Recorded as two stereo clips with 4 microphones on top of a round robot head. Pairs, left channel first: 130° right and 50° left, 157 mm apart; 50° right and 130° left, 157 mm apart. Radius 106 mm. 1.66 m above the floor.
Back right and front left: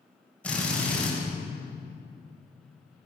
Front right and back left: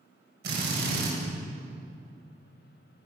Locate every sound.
0.4 s a drill: 150° left, 7 m